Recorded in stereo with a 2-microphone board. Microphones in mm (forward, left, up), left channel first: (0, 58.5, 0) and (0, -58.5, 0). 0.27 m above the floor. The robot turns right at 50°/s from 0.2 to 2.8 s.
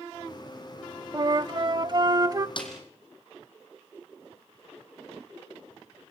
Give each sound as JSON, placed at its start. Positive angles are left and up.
{"t": 1.1, "sound": "a flute", "azimuth_deg": -115, "distance_m": 0.7}
{"t": 2.6, "sound": "a snare drum", "side_deg": 45, "distance_m": 4.0}